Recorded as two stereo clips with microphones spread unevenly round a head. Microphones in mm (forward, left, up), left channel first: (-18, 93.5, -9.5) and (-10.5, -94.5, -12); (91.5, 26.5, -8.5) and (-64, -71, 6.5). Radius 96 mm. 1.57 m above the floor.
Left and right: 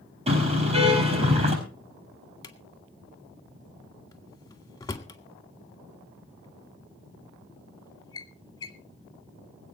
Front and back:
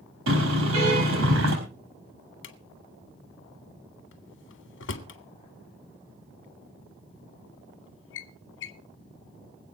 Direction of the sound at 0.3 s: 150° right.